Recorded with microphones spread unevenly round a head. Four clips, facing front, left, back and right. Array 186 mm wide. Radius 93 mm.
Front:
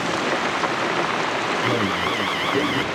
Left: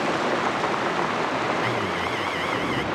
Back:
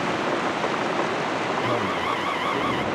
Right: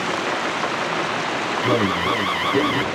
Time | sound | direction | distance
1.6 | an alarm | 70° right | ?